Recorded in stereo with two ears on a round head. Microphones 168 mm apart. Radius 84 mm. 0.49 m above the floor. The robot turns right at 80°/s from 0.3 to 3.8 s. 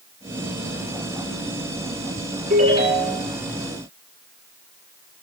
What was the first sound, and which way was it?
A ringtone, 50° right.